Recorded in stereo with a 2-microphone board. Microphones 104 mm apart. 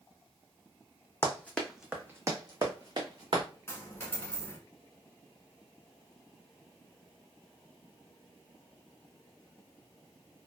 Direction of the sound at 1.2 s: 25° left (ahead or behind).